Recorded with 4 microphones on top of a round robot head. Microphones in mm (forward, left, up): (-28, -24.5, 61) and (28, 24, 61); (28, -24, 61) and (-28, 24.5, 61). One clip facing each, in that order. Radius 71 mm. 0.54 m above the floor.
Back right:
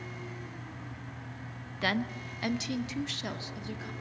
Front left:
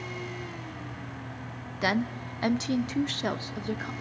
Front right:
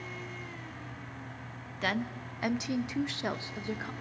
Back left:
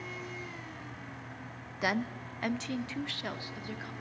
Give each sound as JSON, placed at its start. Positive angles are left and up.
{"t": 1.8, "sound": "a woman speaking", "azimuth_deg": 80, "distance_m": 1.0}